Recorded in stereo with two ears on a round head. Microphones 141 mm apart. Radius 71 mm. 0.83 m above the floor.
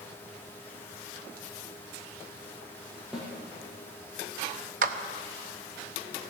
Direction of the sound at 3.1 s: 5° right (ahead or behind).